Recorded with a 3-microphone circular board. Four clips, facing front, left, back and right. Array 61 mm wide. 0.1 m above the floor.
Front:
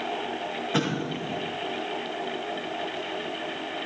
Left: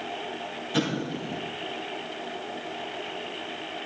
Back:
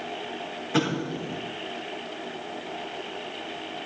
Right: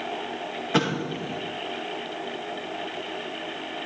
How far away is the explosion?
About 6 m.